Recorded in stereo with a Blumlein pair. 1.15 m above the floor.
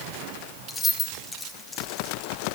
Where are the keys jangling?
10° left, 1.7 m.